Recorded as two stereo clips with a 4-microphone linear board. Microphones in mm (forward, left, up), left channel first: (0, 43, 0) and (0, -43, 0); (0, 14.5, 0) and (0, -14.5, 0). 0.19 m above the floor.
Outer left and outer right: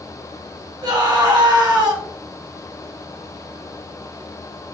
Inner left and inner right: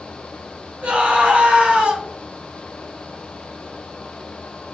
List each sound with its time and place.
0.8 s a scream: 55° right (ahead or behind), 1.6 m